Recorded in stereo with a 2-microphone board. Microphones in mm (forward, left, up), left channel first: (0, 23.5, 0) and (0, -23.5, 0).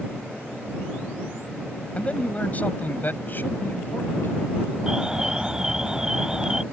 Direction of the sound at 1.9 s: 30° left (ahead or behind).